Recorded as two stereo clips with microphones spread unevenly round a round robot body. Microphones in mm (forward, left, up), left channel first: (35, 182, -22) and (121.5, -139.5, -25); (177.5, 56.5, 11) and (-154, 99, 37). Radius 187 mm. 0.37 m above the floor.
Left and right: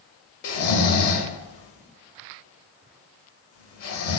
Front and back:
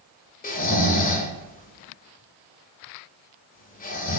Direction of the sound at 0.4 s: 55° left.